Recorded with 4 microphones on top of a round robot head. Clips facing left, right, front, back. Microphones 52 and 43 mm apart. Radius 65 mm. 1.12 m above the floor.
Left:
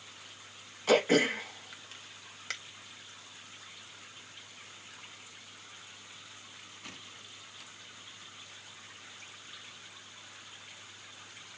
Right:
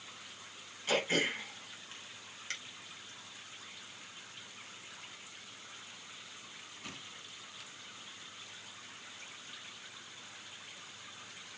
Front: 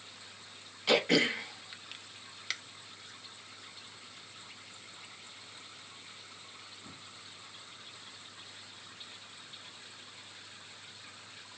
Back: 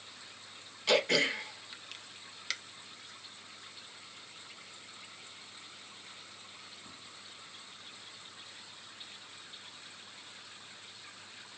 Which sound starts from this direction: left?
Throat clearing, at 0.9 s.